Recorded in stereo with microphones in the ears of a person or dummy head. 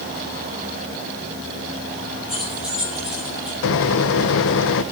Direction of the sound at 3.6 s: 65° left (ahead or behind).